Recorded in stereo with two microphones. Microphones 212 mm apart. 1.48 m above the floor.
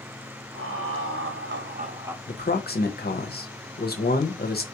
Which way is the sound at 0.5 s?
85° right.